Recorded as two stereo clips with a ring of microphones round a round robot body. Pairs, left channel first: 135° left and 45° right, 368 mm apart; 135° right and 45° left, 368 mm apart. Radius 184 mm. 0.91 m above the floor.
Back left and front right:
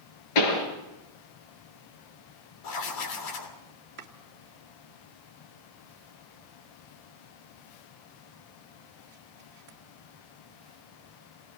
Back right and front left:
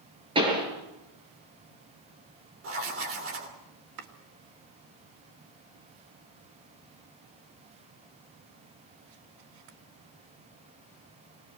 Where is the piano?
I don't hear a piano.